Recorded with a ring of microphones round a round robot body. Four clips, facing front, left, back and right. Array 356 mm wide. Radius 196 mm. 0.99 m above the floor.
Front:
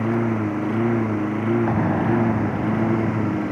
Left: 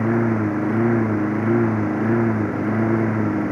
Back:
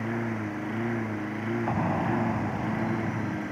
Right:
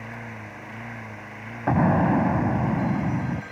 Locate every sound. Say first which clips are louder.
0.0 s a lawn mower: left 19 dB, front 9 dB; 60° left
1.7 s an explosion: even, front 7 dB; 75° right